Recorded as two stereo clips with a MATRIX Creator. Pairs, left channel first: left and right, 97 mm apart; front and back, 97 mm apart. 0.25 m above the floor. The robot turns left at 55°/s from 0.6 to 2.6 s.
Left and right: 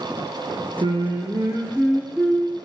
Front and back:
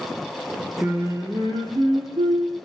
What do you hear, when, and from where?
0.8 s singing: 110° right, 0.7 m; by 2.5 s 155° left, 0.7 m